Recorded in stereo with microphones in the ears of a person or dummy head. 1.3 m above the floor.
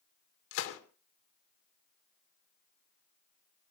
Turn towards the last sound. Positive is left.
turn(degrees=85)